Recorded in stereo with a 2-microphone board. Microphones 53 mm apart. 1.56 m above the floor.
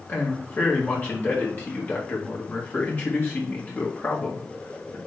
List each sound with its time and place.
0.1 s a man speaking: 40° left (ahead or behind), 2 m